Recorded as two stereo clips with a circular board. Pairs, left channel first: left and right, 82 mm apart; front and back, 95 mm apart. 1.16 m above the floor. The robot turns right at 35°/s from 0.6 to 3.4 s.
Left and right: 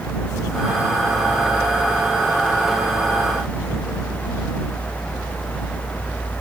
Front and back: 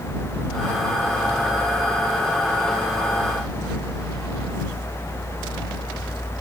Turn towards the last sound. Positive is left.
No sound to turn to.